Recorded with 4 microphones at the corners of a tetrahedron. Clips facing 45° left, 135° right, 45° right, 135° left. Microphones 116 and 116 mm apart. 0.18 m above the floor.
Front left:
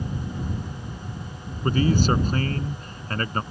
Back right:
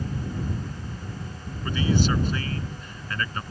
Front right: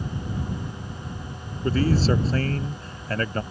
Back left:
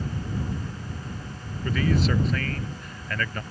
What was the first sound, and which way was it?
A man speaking, 5° left.